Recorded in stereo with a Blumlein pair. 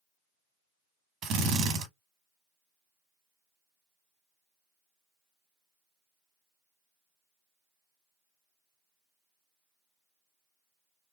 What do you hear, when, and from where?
1.2 s a drill: 25° right, 1.3 m